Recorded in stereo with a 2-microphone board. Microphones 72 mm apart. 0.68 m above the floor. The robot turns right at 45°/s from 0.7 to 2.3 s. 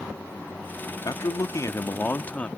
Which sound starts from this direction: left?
A man speaking, at 1.1 s.